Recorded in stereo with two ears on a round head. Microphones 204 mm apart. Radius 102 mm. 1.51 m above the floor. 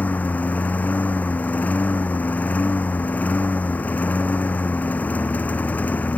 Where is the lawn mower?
5° left (ahead or behind).